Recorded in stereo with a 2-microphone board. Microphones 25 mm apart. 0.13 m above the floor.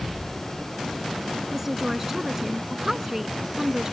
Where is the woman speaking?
15° right (ahead or behind).